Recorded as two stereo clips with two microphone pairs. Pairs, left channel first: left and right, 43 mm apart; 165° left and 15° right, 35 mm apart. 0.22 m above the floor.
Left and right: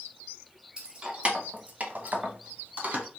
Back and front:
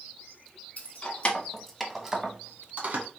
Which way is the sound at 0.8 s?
155° right.